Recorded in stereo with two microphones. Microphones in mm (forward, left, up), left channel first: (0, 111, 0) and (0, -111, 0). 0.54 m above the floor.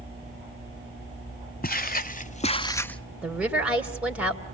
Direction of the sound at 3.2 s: 5° right (ahead or behind).